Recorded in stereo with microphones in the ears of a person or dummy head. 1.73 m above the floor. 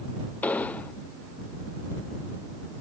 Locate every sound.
0.4 s an explosion: 10° left (ahead or behind)